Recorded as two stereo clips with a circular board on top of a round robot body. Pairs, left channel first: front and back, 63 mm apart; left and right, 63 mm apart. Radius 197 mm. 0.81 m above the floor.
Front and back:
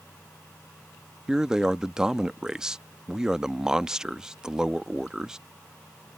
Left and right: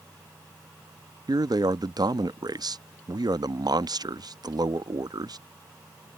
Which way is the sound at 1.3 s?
100° right.